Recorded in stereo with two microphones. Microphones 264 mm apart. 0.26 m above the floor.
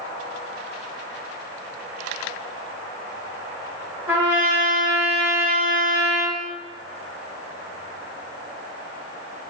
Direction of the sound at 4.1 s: 5° right (ahead or behind).